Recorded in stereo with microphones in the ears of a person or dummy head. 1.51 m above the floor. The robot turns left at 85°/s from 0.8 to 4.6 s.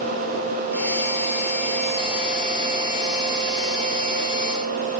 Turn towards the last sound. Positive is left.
No sound to turn to.